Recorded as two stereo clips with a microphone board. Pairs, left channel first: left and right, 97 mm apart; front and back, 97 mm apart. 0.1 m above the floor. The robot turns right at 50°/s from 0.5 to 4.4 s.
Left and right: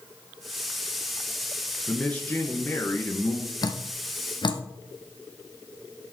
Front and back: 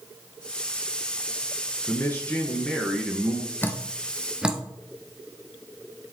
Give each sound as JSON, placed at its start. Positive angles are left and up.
{"t": 1.9, "sound": "a man speaking", "azimuth_deg": 25, "distance_m": 1.3}
{"t": 3.6, "sound": "dripping", "azimuth_deg": 60, "distance_m": 0.9}